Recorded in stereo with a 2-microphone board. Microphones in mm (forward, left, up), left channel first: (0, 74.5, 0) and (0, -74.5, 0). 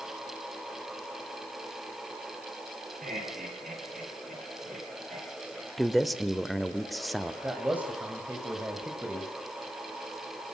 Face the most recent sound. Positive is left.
turn(degrees=-10)  # may be behind; listen again after turning